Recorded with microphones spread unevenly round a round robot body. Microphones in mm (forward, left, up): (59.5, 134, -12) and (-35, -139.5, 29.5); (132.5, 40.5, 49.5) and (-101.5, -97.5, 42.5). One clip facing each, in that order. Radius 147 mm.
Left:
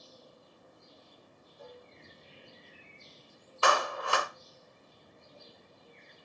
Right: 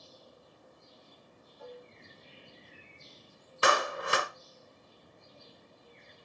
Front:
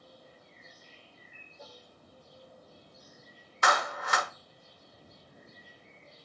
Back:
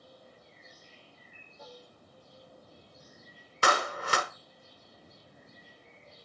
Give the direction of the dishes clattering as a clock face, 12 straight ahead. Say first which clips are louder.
Right 3 dB, back 2 dB; 8 o'clock.